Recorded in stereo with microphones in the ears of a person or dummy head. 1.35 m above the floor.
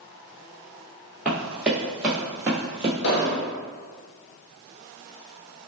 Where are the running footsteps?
5° left (ahead or behind), 1.6 m; by 2.9 s 5° right (ahead or behind), 1.3 m.